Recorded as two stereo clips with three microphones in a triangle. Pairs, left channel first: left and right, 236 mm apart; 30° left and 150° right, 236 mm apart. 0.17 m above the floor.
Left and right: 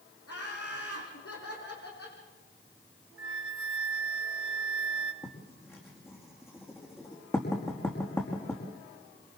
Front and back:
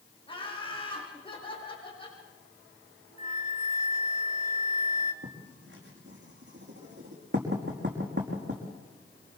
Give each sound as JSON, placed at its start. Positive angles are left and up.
{"t": 0.3, "sound": "laughter", "azimuth_deg": 95, "distance_m": 8.5}
{"t": 3.2, "sound": "a flute", "azimuth_deg": 75, "distance_m": 1.0}
{"t": 5.2, "sound": "writing", "azimuth_deg": 170, "distance_m": 5.0}